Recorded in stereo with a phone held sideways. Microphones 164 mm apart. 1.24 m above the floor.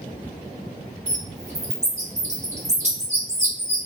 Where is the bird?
45° right (ahead or behind), 1.5 m.